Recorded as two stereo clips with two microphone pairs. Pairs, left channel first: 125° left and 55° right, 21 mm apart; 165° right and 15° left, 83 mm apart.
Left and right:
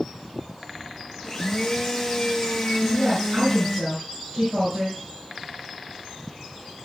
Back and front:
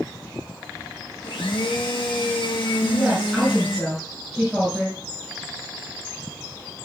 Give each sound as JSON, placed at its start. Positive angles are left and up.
{"t": 1.2, "sound": "a blender", "azimuth_deg": -165, "distance_m": 1.6}
{"t": 2.8, "sound": "a woman speaking", "azimuth_deg": -70, "distance_m": 7.0}